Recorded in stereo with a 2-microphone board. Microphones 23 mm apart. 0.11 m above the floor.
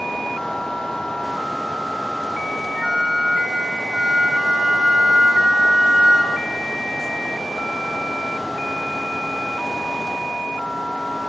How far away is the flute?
About 1.9 m.